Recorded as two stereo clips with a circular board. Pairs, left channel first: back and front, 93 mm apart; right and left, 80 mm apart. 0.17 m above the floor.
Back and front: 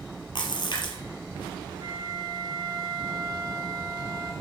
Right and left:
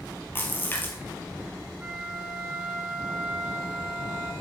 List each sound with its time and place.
0.3 s a splash: 155° right, 2.5 m
1.8 s a flute: 20° left, 1.9 m